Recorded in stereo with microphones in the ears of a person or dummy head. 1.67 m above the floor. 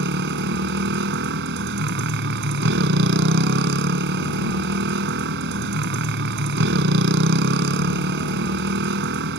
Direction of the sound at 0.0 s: 70° right (ahead or behind).